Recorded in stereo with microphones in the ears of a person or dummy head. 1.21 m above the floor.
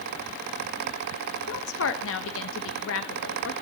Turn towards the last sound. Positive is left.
turn(degrees=70)  # may be behind; listen again after turning